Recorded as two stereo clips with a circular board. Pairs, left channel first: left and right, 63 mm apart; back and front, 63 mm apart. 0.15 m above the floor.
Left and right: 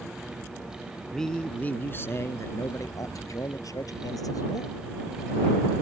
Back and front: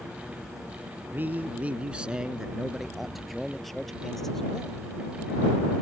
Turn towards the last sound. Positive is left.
turn(degrees=100)